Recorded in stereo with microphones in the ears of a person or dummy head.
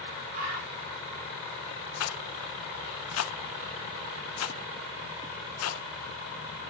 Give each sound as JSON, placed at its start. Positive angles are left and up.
{"t": 0.3, "sound": "a bird", "side_deg": -80, "distance_m": 6.5}
{"t": 2.0, "sound": "a rattle", "side_deg": 75, "distance_m": 0.6}